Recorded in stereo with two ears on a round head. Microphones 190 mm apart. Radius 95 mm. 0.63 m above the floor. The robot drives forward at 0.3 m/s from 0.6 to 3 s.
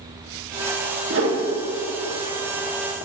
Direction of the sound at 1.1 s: 65° right (ahead or behind).